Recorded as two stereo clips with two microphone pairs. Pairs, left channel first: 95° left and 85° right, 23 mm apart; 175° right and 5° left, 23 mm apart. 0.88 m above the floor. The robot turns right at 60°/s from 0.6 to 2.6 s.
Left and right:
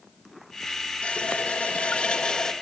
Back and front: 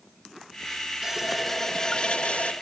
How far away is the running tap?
About 1.6 m.